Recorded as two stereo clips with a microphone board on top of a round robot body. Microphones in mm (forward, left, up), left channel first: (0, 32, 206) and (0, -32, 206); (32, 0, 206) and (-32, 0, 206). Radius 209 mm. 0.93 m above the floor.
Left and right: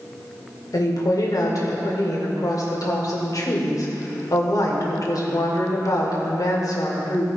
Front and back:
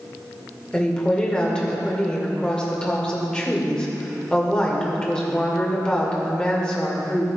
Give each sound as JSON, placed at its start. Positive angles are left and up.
{"t": 0.7, "sound": "a woman speaking", "azimuth_deg": 75, "distance_m": 2.0}